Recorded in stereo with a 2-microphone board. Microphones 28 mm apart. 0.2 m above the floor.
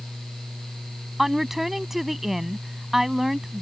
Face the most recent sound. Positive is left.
turn(degrees=-10)  # may be behind; listen again after turning